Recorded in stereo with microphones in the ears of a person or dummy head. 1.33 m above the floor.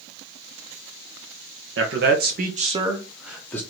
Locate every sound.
1.8 s a man speaking: 60° right (ahead or behind), 1.1 m; by 3.6 s 15° left (ahead or behind), 0.9 m